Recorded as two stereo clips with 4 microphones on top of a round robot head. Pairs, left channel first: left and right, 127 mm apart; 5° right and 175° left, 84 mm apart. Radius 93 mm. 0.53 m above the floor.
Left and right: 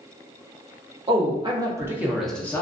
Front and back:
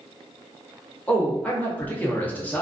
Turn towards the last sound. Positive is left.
turn(degrees=50)